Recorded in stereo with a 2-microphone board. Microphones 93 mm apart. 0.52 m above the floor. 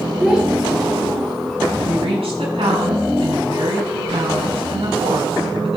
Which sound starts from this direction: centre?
A child speaking, at 0.2 s.